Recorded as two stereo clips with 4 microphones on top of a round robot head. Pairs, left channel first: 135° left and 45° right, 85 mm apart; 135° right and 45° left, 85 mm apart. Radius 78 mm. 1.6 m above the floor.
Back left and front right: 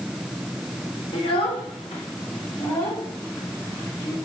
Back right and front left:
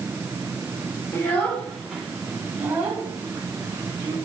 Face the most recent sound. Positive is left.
turn(degrees=90)